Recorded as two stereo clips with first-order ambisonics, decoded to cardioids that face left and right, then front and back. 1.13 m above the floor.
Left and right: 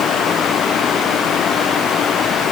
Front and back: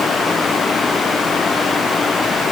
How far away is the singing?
I don't hear singing.